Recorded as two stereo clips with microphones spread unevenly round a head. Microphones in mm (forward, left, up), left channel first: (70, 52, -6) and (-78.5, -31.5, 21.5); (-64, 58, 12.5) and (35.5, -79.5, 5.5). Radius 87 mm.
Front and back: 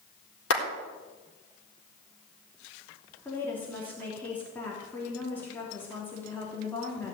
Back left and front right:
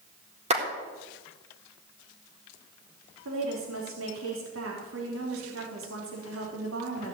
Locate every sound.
0.5 s a clap: 5° left, 4 m
3.2 s a woman speaking: 55° right, 3 m